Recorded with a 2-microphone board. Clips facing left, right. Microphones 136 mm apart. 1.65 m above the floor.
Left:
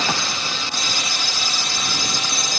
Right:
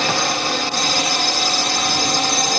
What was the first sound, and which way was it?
A drone, 65° right (ahead or behind).